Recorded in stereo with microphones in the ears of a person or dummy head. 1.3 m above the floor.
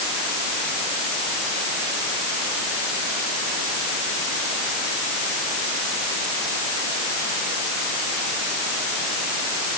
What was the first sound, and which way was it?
Only background noise.